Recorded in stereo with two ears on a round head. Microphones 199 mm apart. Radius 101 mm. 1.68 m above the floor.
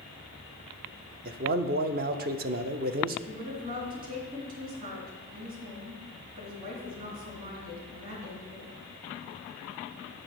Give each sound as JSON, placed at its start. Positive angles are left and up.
{"t": 1.2, "sound": "a man speaking", "side_deg": -40, "distance_m": 0.5}
{"t": 3.3, "sound": "a woman speaking", "side_deg": -40, "distance_m": 3.0}